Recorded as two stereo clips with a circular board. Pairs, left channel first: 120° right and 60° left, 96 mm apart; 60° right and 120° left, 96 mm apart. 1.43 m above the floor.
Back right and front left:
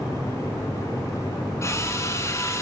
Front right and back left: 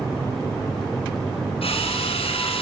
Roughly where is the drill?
Ahead right.